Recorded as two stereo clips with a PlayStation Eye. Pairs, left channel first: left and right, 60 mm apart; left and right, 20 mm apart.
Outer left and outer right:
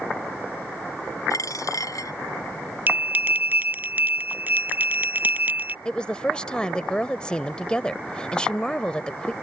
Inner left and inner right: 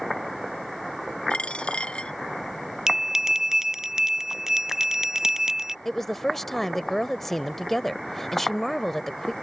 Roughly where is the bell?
Right.